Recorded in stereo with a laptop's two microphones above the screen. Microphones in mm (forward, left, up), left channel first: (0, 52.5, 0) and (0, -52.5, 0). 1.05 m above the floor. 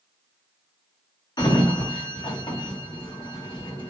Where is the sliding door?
45° left (ahead or behind), 0.9 m.